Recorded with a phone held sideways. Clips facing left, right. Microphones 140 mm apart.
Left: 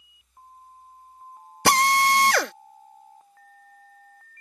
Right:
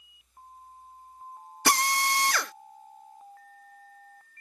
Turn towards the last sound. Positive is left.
turn(degrees=65)  # may be behind; listen again after turning